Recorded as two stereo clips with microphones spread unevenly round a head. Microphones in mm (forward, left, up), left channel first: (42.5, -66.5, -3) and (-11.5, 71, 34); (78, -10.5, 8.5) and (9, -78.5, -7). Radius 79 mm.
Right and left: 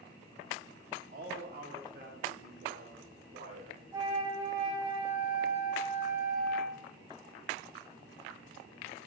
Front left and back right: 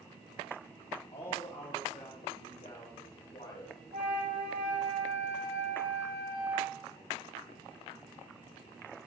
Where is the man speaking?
90° left, 2.5 m; by 3.8 s 80° left, 6 m.